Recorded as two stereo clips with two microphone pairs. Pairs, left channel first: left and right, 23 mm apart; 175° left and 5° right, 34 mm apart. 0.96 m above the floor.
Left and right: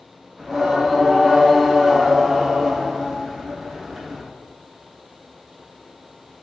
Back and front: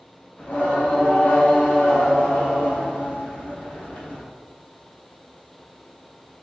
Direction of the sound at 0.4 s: 150° right.